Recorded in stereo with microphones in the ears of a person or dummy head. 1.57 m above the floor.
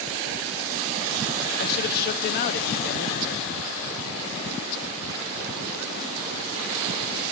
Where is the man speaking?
50° left (ahead or behind), 0.5 m.